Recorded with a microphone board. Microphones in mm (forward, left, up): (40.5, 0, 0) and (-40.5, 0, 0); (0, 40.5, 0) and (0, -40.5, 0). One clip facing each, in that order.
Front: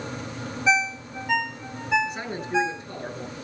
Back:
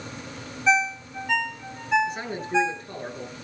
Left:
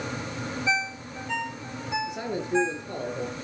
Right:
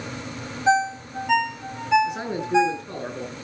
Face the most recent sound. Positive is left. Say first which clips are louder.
# even, right 3 dB
turn(degrees=-80)